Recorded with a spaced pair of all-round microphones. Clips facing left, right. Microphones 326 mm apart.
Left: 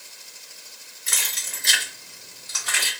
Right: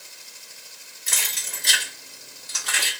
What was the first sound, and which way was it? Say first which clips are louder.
Keys jangling: right 1 dB; 30° right (ahead or behind).